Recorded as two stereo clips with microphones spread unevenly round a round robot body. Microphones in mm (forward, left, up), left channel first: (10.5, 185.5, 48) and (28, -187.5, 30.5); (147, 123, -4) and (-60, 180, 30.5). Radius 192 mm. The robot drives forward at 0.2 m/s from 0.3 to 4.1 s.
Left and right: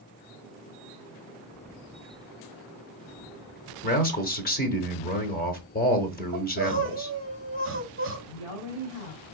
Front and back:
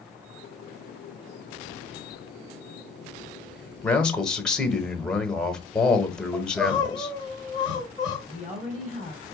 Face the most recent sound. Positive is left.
turn(degrees=110)